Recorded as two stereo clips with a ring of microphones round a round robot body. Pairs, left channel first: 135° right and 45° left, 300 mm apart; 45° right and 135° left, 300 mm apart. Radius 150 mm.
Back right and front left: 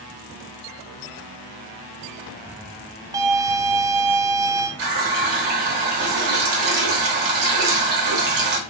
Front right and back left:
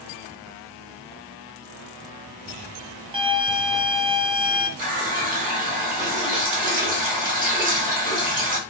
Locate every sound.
3.1 s a violin: 100° left, 0.6 m
4.8 s a running tap: 70° left, 1.0 m